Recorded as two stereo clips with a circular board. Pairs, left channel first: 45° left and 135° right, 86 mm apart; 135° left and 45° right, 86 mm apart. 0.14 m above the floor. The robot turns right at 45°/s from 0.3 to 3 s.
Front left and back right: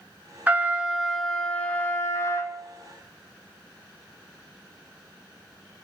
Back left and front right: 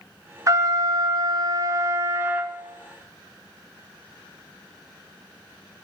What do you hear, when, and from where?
0.5 s a trumpet: 75° right, 0.7 m; by 2.5 s 20° left, 0.7 m